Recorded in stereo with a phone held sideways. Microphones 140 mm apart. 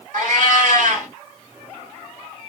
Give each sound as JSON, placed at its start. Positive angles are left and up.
{"t": 0.1, "sound": "a cat meowing", "side_deg": -70, "distance_m": 1.4}